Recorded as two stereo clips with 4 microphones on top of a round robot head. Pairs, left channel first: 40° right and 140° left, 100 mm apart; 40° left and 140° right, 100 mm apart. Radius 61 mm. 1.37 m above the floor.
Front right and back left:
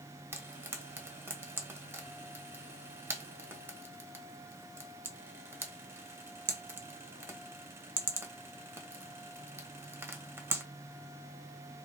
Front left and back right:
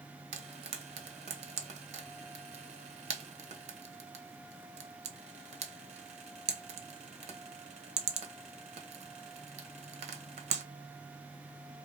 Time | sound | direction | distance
0.3 | frying | 155° right | 1.0 m